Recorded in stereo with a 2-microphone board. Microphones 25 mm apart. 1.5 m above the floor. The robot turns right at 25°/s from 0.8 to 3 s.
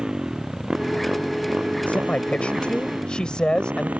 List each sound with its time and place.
0.0 s a motorcycle: 35° right (ahead or behind); by 4.0 s 85° right
1.9 s a man speaking: 65° left (ahead or behind); by 3.9 s 35° left (ahead or behind)